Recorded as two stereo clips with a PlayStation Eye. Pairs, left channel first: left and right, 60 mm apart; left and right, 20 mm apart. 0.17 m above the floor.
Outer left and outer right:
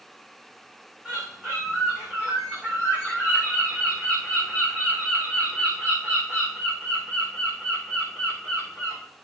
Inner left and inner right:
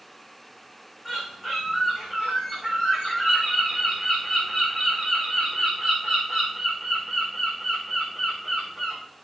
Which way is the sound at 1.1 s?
15° right (ahead or behind).